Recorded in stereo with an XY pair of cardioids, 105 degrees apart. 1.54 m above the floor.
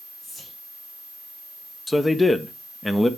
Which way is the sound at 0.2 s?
55° left.